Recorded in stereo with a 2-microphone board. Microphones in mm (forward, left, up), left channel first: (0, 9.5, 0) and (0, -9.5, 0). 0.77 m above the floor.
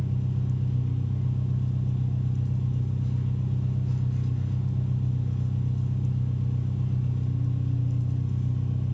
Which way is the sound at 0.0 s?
10° right (ahead or behind).